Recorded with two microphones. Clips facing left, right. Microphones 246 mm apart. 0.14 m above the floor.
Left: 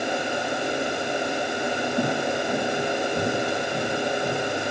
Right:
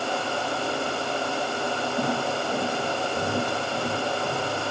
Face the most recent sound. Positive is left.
turn(degrees=45)  # may be behind; listen again after turning